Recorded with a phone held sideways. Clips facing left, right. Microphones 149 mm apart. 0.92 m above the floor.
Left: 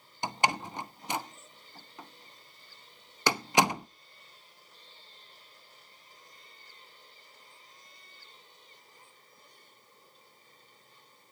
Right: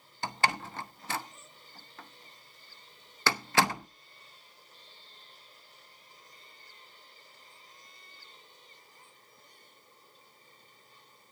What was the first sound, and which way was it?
A door slam, 15° left (ahead or behind).